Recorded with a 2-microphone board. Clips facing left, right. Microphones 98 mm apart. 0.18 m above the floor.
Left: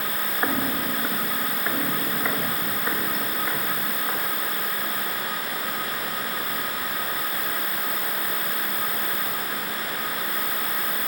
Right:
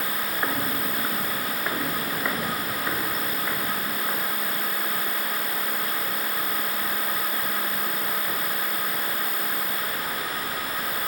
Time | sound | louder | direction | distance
0.4 | footsteps | left 3 dB | 15° left (ahead or behind) | 0.7 m